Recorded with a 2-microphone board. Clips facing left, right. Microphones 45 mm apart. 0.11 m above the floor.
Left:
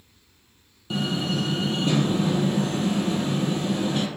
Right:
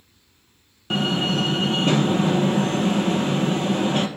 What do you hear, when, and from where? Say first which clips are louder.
0.9 s a door slam: right 4 dB; 50° right (ahead or behind), 1.7 m